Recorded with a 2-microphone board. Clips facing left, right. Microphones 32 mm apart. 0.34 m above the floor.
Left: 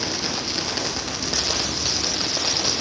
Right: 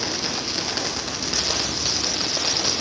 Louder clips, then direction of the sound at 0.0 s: Even; centre (ahead or behind).